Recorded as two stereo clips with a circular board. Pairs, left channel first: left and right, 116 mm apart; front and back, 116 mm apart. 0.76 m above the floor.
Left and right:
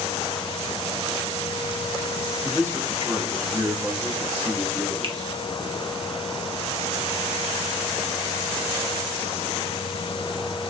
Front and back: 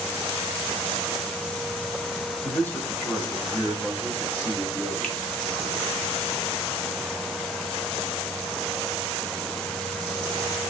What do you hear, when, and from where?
2.4 s a man speaking: 30° right, 1.0 m; by 5.3 s 125° right, 2 m
5.0 s a finger snap: 80° right, 0.8 m